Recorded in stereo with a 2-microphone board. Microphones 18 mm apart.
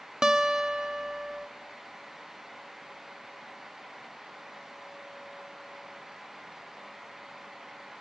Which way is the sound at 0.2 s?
40° right (ahead or behind).